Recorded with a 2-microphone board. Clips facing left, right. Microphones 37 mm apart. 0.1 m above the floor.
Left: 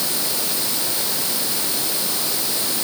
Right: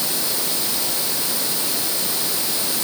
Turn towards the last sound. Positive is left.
No sound to turn to.